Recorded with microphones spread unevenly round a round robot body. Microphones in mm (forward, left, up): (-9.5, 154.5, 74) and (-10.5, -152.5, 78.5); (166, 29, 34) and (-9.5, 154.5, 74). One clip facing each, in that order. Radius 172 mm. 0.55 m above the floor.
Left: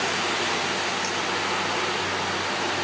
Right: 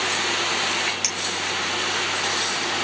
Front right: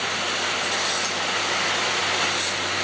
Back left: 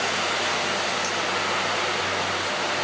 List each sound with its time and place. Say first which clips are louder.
1.0 s a clink: left 4 dB, back left 2 dB; 130° right, 3.5 m